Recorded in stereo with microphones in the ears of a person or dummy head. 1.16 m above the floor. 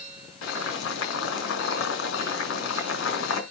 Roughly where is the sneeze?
I don't hear a sneeze.